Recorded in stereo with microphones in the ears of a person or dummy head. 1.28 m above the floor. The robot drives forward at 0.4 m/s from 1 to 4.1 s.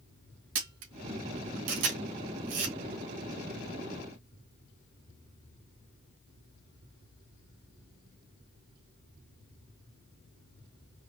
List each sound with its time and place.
0.6 s a camera shutter: 65° right (ahead or behind), 2 m; by 2.8 s 60° right (ahead or behind), 2.5 m